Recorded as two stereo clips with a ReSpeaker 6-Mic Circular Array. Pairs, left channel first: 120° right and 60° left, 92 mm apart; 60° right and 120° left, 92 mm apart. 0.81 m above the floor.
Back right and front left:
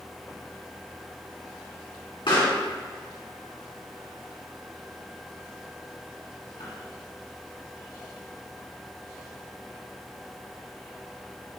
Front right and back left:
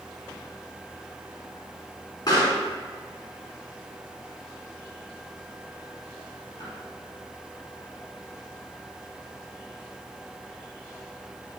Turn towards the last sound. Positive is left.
turn(degrees=-100)